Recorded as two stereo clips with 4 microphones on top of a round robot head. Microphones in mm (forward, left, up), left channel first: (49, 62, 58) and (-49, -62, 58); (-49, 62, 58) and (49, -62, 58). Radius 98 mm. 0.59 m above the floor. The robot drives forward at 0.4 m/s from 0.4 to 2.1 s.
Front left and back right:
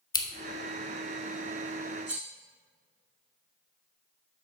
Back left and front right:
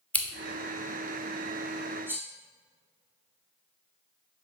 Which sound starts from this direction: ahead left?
Scissors, at 0.1 s.